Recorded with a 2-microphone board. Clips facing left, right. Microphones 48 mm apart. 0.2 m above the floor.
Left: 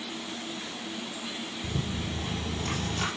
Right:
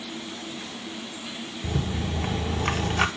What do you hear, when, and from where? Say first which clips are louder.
1.6 s a rattle: right 5 dB; 60° right (ahead or behind), 0.7 m